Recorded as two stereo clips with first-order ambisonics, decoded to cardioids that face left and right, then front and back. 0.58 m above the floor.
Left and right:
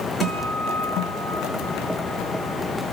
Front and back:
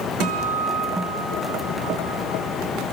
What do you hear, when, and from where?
0.2 s a guitar: 165° left, 6.5 m